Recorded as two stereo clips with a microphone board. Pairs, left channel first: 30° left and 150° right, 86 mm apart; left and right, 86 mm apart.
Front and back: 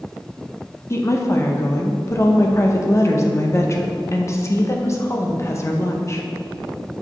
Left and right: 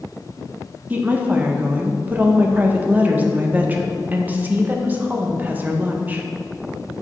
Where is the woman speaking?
20° right, 0.7 m.